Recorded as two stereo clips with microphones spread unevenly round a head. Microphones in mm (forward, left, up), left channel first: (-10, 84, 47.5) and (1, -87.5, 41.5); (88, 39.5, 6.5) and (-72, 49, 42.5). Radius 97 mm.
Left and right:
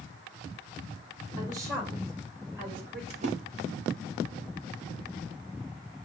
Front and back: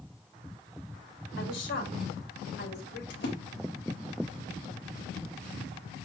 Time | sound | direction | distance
1.4 | a woman speaking | 15° right | 4.5 m
3.1 | a splash | 35° right | 1.7 m